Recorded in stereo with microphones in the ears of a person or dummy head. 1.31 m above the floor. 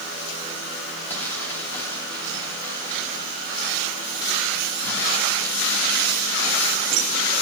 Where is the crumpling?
15° left (ahead or behind), 3 m.